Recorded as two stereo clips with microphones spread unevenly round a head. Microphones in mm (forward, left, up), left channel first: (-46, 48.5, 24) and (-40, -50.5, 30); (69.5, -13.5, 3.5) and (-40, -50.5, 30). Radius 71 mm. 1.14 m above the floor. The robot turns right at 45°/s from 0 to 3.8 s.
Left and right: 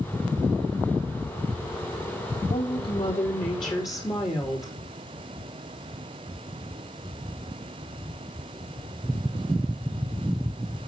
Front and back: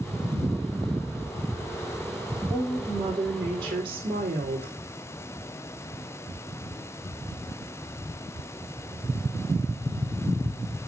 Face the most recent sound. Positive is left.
turn(degrees=140)